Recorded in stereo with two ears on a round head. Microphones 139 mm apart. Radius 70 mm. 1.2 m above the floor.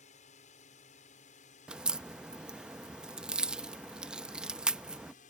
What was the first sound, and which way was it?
A drone, 50° left (ahead or behind).